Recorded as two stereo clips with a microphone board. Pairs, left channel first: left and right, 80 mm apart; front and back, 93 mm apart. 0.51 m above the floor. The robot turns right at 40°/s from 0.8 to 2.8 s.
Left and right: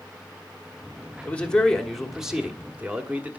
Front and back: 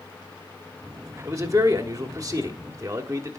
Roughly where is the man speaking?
Behind left.